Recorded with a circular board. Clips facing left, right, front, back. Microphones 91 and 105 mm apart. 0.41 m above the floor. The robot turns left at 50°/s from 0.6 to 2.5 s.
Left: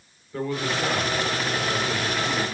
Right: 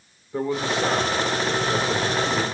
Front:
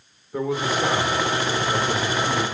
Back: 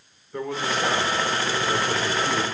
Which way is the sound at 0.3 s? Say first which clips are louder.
Right 3 dB, front 3 dB; 65° right.